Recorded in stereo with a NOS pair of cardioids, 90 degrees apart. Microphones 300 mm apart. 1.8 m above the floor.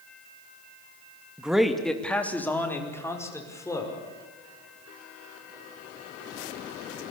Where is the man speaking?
5° right, 2.5 m; by 4.0 s 10° left, 6 m.